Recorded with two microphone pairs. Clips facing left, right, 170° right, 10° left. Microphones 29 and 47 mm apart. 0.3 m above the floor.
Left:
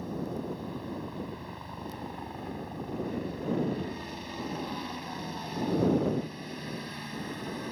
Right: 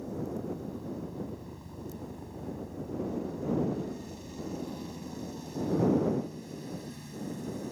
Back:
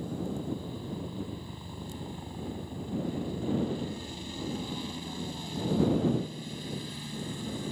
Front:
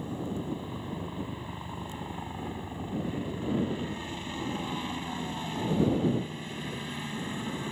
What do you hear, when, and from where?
0.0 s a helicopter: 55° left